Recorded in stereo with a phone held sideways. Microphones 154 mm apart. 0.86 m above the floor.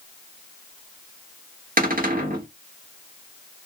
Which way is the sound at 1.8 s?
75° right (ahead or behind).